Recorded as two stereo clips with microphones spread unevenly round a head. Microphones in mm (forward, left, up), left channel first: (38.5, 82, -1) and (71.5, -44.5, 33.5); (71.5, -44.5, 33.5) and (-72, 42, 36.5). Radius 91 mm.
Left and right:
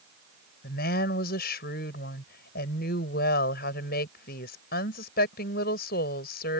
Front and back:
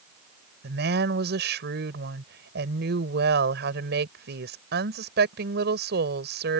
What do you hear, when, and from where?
0.6 s a woman speaking: 120° left